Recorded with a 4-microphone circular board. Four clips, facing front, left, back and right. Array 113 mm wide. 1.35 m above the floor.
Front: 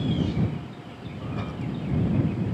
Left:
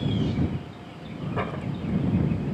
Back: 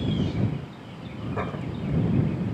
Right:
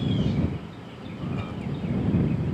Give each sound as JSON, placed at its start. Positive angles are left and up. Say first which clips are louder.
{"t": 1.4, "sound": "a door slam", "louder": "left 2 dB, back 1 dB", "azimuth_deg": 125}